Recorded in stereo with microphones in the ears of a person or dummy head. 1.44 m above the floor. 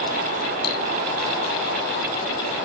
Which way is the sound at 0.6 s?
60° left (ahead or behind).